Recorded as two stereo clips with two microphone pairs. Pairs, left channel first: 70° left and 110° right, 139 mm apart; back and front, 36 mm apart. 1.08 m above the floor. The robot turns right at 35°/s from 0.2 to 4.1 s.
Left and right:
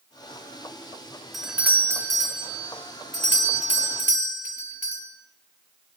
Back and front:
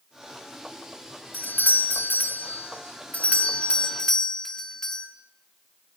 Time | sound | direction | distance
1.3 | a doorbell | 160° left | 4 m